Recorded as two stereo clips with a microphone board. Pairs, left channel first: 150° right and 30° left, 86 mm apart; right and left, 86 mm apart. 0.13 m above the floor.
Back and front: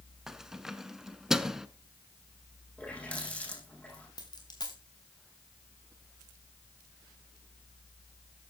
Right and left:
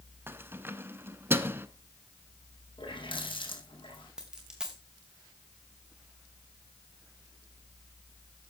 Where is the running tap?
75° right, 4.5 m.